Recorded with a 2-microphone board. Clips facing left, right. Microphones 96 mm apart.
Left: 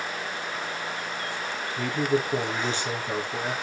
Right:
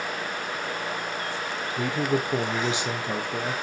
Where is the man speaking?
15° right (ahead or behind), 2.5 m.